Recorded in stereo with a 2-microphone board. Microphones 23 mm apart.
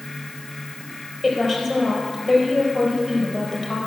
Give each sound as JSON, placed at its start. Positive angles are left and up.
{"t": 1.2, "sound": "a woman speaking", "side_deg": 10, "distance_m": 4.0}